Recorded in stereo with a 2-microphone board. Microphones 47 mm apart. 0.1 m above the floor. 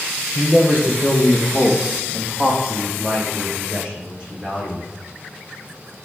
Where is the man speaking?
40° right (ahead or behind), 3.5 m; by 4.8 s 20° right (ahead or behind), 7 m.